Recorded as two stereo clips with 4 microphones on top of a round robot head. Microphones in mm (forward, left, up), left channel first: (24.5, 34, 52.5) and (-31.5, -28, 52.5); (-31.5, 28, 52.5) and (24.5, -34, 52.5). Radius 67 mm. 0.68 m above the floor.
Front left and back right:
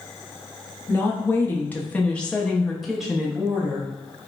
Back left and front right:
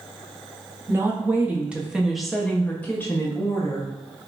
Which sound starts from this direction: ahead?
A woman speaking, at 0.9 s.